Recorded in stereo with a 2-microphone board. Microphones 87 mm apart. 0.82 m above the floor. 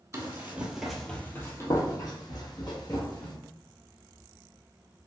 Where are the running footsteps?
30° right (ahead or behind), 1.0 m; by 3.4 s 55° left (ahead or behind), 2 m.